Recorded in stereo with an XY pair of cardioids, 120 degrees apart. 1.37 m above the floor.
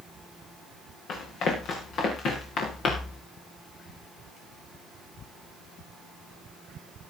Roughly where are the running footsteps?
Ahead left.